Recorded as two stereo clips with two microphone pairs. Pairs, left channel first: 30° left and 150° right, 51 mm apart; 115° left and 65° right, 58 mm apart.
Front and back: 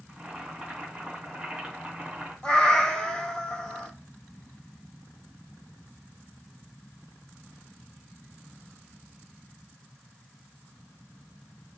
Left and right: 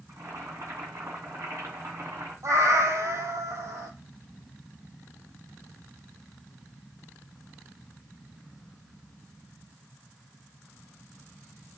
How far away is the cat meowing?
About 0.7 m.